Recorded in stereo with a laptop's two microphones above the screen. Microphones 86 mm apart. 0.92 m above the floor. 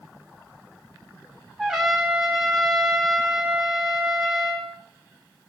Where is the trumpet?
5° right (ahead or behind), 3 m.